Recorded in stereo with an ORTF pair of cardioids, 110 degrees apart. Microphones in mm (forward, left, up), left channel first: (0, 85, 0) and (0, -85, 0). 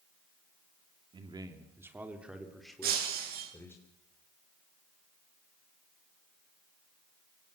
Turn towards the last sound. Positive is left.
turn(degrees=-65)